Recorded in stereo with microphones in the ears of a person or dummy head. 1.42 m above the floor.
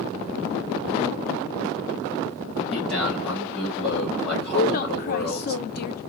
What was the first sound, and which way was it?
A man speaking, 5° left (ahead or behind).